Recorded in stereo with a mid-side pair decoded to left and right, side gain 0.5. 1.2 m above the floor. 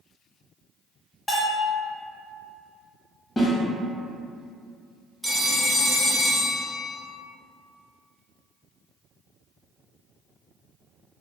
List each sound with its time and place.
1.3 s a bell: 25° left, 1.1 m
3.4 s a snare drum: 30° left, 1.1 m
5.2 s a phone ringing: straight ahead, 0.6 m